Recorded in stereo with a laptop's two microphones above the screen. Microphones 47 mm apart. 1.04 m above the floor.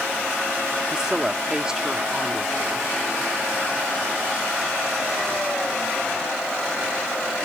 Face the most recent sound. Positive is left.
turn(degrees=-15)  # may be behind; listen again after turning